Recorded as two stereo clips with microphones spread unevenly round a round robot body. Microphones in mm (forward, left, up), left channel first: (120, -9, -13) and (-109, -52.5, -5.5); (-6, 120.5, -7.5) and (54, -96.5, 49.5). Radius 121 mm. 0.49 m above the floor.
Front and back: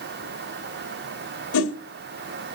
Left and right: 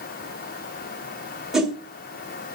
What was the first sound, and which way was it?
A whoosh, 20° left.